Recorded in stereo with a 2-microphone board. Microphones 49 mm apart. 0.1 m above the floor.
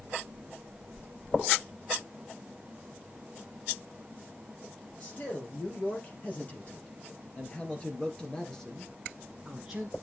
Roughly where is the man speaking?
Left.